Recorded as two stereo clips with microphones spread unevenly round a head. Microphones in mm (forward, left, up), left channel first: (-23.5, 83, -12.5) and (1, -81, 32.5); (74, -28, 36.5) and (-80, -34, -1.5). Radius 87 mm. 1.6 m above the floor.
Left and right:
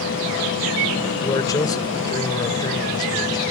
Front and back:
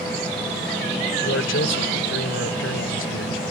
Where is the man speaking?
25° left.